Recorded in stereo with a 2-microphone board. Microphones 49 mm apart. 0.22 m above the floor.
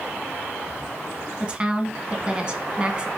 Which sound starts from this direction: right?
A woman speaking, at 1.4 s.